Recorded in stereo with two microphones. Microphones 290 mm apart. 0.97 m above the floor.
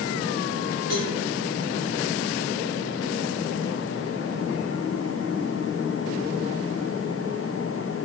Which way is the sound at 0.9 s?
85° right.